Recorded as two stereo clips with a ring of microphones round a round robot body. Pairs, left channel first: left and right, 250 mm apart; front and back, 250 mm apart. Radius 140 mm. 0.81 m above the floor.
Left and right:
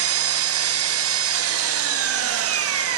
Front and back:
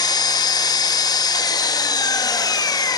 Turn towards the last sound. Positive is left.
turn(degrees=-75)